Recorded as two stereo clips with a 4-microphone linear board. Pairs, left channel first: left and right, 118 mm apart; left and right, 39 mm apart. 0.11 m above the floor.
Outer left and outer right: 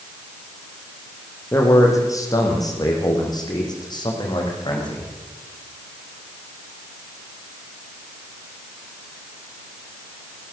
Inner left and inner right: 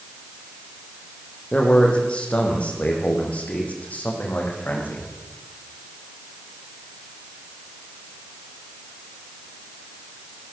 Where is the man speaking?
25° left (ahead or behind), 5.5 m; by 5.0 s 45° left (ahead or behind), 8 m.